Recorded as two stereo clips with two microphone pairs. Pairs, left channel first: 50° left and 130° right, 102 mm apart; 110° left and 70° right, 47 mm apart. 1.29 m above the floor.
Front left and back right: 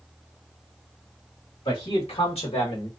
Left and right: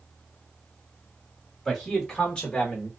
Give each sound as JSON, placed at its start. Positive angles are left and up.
{"t": 1.6, "sound": "a man speaking", "azimuth_deg": 15, "distance_m": 1.7}